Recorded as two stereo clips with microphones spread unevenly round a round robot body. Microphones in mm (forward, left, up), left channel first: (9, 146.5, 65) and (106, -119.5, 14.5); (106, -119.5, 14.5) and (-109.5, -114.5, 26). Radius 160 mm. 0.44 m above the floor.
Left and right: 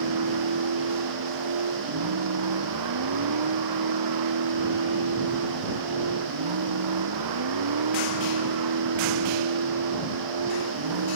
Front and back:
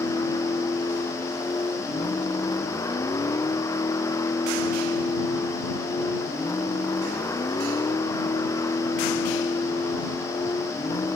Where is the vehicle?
75° right.